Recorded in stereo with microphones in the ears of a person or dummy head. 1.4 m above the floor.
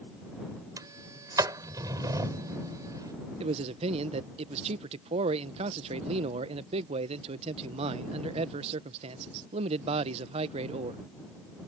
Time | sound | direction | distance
0.8 | a sliding door | 20° right (ahead or behind) | ?
3.4 | a man speaking | 35° right (ahead or behind) | ?